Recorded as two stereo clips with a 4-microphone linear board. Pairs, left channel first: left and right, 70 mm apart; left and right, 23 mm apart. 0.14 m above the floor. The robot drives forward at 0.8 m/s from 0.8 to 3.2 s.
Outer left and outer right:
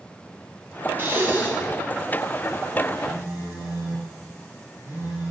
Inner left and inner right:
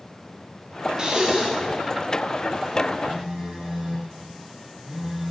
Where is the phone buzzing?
30° right (ahead or behind), 2.5 m.